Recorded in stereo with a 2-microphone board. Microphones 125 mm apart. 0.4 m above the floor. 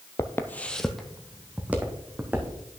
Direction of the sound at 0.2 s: 30° left (ahead or behind).